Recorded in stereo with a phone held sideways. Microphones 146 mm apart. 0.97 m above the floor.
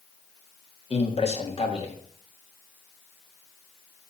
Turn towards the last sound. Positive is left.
turn(degrees=40)  # may be behind; listen again after turning